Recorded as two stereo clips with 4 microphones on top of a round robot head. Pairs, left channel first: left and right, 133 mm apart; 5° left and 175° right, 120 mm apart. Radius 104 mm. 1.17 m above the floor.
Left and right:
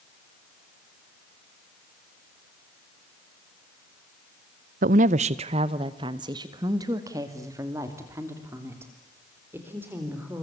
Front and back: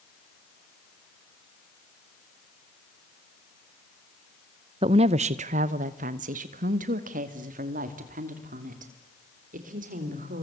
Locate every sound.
4.8 s a woman speaking: 120° right, 0.6 m; by 10.4 s 170° right, 4 m